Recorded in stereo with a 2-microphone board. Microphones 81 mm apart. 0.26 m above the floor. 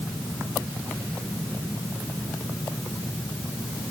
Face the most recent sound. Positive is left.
No sound to turn to.